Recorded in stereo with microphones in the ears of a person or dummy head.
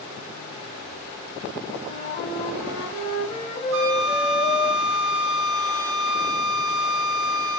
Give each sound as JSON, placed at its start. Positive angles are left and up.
{"t": 1.9, "sound": "a flute", "side_deg": 35, "distance_m": 6.0}
{"t": 3.7, "sound": "a flute", "side_deg": -70, "distance_m": 2.0}